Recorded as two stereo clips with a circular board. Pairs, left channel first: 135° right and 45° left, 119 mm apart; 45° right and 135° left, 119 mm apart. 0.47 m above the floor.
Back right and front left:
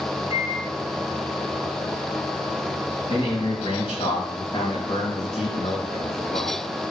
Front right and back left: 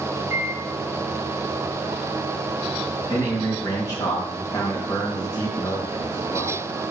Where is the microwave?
155° right, 2 m.